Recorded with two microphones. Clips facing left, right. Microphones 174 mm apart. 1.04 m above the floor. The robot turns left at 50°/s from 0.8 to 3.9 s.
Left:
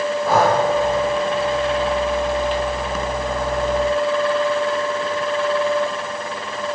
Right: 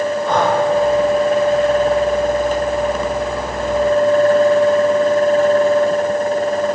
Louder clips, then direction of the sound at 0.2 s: Left 1 dB; 5° left (ahead or behind).